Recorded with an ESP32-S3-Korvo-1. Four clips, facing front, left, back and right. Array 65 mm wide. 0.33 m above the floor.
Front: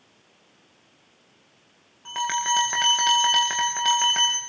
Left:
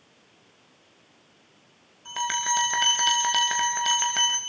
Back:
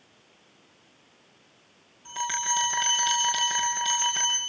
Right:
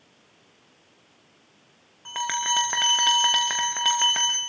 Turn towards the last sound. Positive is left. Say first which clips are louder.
# even, front 5 dB
turn(degrees=-55)